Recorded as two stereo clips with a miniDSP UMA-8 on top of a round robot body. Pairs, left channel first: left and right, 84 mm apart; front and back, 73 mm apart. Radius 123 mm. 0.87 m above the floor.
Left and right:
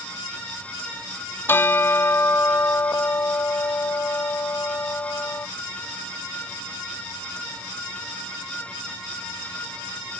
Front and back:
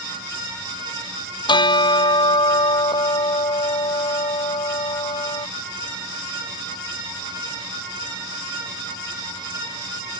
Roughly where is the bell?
Ahead left.